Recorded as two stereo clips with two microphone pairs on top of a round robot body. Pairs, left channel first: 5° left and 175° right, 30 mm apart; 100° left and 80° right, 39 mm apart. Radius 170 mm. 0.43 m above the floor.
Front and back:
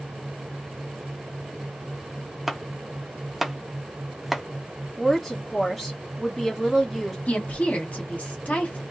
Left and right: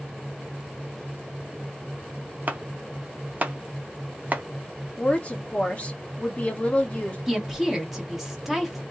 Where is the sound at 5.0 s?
105° left, 1.4 m.